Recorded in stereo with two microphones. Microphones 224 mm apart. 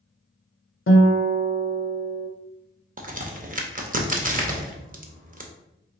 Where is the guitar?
65° left (ahead or behind), 0.6 m.